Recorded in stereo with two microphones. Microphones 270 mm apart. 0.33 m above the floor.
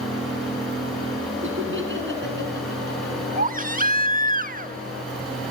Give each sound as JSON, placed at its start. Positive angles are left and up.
{"t": 1.4, "sound": "laughter", "side_deg": -45, "distance_m": 4.0}
{"t": 3.4, "sound": "a baby crying", "side_deg": -30, "distance_m": 0.7}